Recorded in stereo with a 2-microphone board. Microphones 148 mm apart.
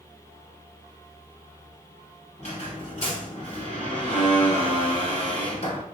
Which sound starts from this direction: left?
A squeak, at 2.4 s.